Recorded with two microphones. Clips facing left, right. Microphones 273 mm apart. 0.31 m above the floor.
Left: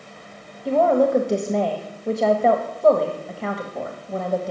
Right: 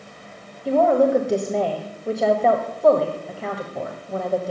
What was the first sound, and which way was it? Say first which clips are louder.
A woman speaking: right 1 dB; centre (ahead or behind).